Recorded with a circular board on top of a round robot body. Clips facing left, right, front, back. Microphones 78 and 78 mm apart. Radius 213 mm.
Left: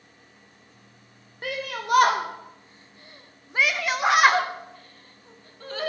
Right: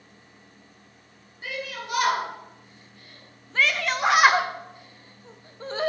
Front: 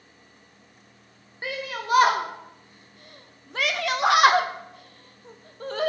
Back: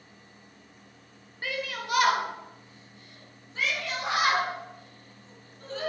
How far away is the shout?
About 1.5 m.